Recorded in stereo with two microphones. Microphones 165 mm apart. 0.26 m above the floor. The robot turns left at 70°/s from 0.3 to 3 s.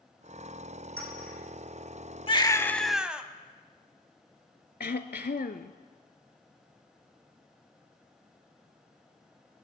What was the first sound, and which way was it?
A clink, 85° right.